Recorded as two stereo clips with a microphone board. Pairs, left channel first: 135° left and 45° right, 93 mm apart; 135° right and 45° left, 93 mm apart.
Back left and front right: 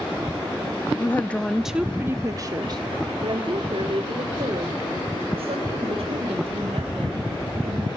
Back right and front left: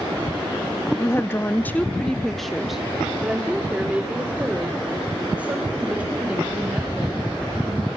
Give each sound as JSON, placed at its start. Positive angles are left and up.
{"t": 1.0, "sound": "a woman speaking", "azimuth_deg": -175, "distance_m": 1.0}